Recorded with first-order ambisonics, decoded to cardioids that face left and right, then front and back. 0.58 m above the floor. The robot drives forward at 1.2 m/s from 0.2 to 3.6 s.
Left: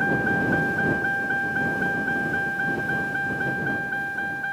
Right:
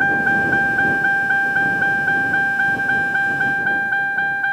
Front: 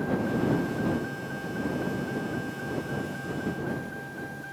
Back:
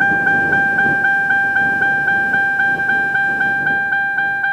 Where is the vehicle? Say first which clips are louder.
Right 7 dB, back 16 dB; 155° right; by 4.5 s 150° right.